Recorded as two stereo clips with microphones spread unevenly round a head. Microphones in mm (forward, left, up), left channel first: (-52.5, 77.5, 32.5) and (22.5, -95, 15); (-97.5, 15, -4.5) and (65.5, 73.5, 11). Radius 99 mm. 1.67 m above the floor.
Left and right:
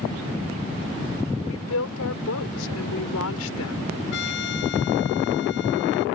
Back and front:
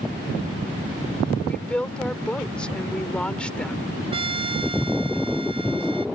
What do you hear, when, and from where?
1.4 s a woman speaking: 115° left
4.1 s a trumpet: 80° left